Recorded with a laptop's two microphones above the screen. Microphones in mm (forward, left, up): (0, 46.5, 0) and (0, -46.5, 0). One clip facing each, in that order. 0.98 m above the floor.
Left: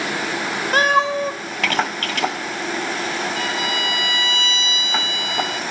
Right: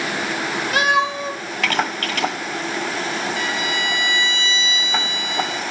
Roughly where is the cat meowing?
Left.